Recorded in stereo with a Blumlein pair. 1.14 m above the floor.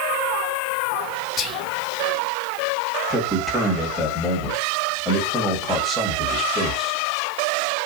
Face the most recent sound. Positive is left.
turn(degrees=0)